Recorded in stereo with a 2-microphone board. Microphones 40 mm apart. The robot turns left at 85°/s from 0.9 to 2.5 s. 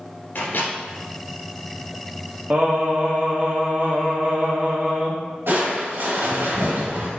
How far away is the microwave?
About 2.5 m.